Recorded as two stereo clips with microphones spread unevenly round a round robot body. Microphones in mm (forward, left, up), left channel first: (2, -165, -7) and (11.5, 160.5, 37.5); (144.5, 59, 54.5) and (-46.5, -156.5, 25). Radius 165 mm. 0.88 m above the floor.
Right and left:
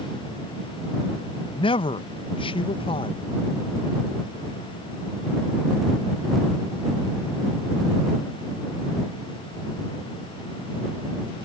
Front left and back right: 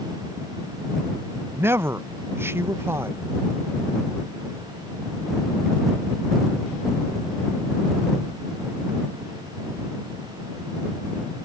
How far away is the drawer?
No drawer in this recording.